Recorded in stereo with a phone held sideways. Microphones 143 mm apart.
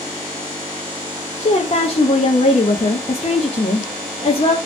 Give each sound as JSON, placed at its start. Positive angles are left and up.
{"t": 1.4, "sound": "a woman speaking", "side_deg": 40, "distance_m": 0.6}